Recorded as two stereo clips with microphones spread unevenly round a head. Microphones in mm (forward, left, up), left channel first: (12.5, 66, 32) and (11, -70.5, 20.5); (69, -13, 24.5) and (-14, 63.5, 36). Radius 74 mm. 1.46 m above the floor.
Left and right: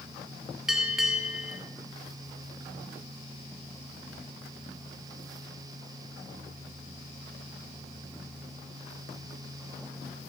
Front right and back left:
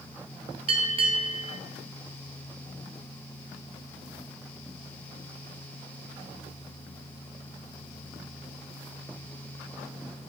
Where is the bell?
Straight behind, 1.0 m.